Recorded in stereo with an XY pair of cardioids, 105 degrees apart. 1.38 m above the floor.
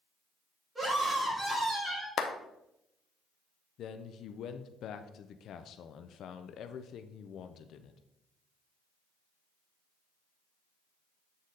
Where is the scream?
20° right, 3.5 m.